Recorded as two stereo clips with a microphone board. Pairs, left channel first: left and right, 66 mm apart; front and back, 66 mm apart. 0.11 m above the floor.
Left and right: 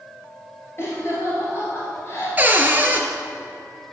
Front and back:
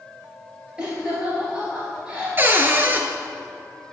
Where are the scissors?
No scissors in this recording.